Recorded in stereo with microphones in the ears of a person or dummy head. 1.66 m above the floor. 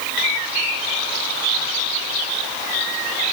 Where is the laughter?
I don't hear laughter.